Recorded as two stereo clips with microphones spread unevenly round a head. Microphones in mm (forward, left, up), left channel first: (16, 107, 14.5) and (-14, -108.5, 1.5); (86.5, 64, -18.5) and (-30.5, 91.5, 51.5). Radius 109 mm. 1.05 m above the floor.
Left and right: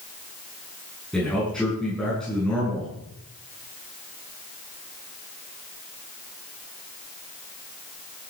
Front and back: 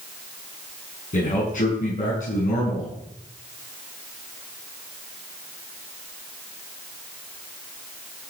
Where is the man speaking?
5° right, 9 m.